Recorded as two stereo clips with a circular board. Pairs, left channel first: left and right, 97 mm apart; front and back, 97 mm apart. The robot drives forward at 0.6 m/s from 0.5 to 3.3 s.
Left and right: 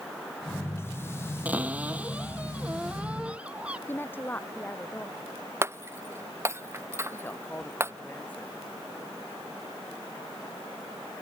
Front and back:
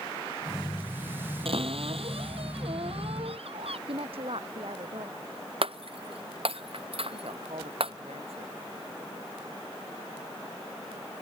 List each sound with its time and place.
1.4 s a cupboard door: 165° right; by 3.8 s 170° right
3.9 s a woman speaking: 160° left
5.6 s breaking glass: 155° right
7.1 s a woman speaking: 165° left